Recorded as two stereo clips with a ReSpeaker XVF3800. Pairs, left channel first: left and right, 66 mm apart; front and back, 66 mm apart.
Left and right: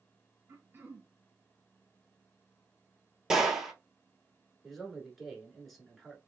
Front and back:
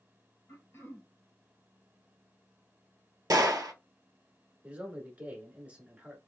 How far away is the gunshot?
About 0.6 m.